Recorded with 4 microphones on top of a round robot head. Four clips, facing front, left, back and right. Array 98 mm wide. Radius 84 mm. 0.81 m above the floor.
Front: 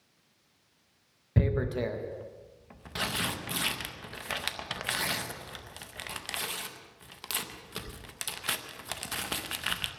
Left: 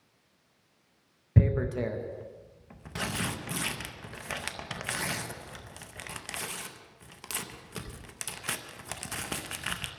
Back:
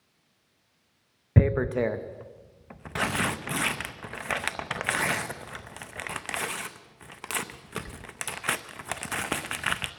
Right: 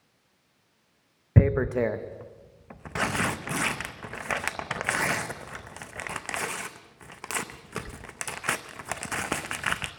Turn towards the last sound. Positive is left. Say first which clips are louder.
# right 5 dB, back 5 dB
turn(degrees=-130)